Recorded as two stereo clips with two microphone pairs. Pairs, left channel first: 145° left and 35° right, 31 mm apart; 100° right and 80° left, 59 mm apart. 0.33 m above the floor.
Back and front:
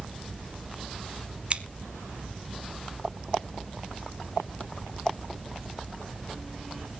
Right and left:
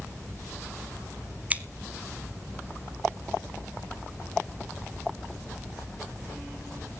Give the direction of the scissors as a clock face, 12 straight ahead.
11 o'clock.